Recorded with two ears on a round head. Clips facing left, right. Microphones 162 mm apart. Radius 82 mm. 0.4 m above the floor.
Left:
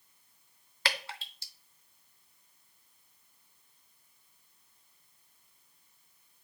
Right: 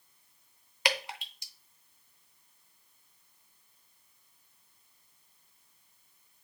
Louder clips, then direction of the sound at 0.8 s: Right 4 dB; 15° right (ahead or behind).